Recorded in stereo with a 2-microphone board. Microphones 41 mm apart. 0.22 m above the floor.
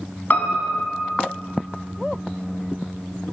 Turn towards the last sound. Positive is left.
turn(degrees=50)  # may be behind; listen again after turning